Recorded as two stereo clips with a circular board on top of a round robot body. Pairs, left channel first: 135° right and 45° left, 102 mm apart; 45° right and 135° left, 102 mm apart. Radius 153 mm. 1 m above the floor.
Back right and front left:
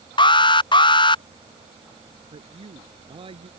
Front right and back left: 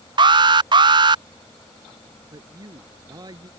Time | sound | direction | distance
0.2 | an alarm | straight behind | ?
2.3 | a man speaking | 80° left | ?